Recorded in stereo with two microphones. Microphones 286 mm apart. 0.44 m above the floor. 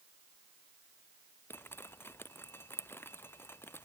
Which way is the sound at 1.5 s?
5° left (ahead or behind).